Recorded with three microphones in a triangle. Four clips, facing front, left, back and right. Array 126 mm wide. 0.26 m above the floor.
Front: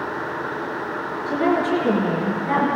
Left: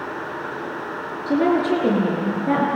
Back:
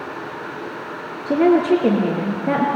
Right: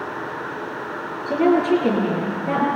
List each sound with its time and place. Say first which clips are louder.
1.3 s a woman speaking: right 1 dB, back 6 dB; 165° left, 5.5 m